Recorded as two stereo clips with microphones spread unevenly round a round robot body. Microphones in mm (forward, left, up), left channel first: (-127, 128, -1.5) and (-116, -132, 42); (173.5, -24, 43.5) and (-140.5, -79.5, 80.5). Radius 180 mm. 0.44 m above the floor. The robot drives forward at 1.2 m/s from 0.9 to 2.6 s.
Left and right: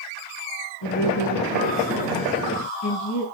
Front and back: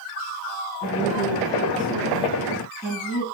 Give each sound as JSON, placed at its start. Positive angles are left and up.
{"t": 0.8, "sound": "a woman speaking", "azimuth_deg": 80, "distance_m": 5.0}